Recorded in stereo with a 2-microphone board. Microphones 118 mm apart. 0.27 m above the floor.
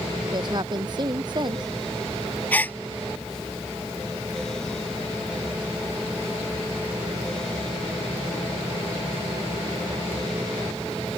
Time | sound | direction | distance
0.3 | a woman speaking | 40° right (ahead or behind) | ?
2.5 | a gasp | 15° left (ahead or behind) | ?